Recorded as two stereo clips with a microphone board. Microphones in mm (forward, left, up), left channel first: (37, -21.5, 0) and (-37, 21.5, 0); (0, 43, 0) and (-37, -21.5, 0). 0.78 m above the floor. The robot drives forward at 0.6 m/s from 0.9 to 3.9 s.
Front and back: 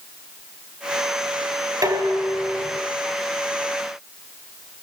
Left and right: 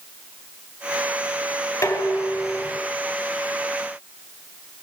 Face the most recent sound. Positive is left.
turn(degrees=120)